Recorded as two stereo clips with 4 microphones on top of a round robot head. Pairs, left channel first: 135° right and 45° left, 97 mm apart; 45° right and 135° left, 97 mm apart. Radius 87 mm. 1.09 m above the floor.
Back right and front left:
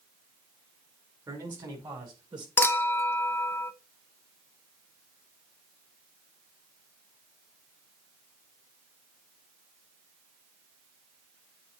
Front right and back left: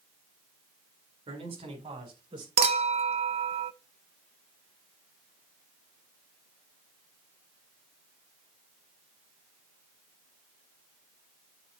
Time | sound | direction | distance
1.3 | a man speaking | 100° left | 4 m
2.6 | a clink | 155° left | 0.5 m